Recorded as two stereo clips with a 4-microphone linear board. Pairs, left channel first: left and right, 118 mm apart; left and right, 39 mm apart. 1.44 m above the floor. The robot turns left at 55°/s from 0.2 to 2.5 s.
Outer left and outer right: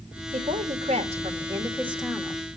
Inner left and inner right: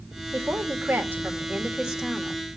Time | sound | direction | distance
0.3 | a woman speaking | 85° right | 2 m